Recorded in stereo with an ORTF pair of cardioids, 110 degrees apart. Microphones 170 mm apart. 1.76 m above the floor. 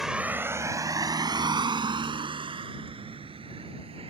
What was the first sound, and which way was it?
A vehicle, straight ahead.